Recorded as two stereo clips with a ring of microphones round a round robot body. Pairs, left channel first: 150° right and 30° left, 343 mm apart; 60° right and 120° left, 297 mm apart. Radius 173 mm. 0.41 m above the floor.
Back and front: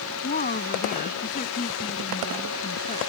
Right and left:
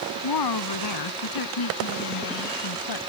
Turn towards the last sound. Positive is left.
turn(degrees=-80)